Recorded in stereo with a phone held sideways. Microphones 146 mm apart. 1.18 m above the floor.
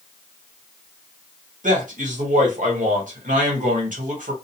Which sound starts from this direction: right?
A man speaking, at 1.6 s.